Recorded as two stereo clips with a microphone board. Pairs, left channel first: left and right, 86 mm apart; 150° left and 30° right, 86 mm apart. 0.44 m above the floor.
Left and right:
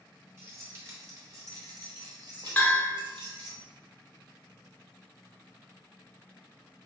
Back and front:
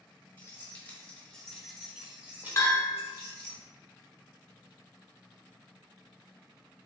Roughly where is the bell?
Behind left.